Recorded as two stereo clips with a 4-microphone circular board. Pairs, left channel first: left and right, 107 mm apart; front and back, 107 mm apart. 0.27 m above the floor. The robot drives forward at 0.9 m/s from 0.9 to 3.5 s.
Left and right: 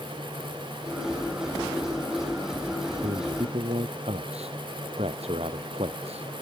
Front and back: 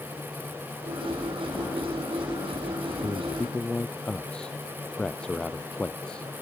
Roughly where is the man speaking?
Right.